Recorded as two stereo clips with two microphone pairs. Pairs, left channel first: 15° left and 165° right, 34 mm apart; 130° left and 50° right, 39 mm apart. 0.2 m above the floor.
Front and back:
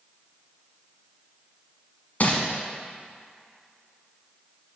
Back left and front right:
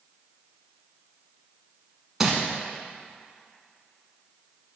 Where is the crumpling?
35° left, 1.3 m.